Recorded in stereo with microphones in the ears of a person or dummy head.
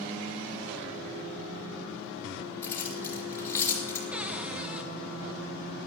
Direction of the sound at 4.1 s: 5° right (ahead or behind).